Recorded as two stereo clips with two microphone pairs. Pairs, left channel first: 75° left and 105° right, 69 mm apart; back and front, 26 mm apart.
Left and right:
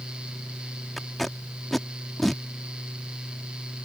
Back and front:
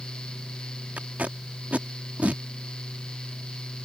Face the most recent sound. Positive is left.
turn(degrees=-15)